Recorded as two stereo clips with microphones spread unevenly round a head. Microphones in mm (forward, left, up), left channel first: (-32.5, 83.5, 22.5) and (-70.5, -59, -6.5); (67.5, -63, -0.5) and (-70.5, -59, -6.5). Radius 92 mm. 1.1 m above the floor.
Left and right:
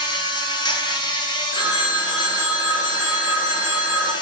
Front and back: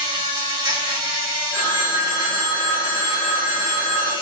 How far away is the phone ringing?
About 2.5 m.